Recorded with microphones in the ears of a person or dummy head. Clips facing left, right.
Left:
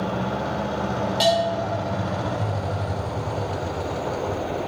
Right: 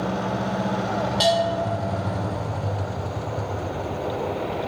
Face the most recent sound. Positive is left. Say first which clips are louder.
# left 1 dB
turn(degrees=30)  # may be behind; listen again after turning